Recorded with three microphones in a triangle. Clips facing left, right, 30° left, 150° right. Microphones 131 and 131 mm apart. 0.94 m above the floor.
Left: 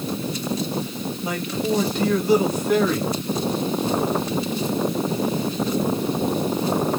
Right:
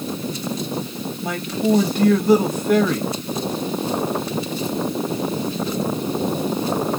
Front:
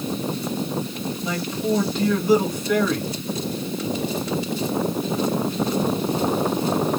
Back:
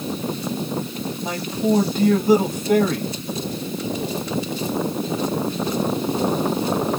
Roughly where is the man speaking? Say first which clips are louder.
Right 4 dB, back 3 dB; behind right.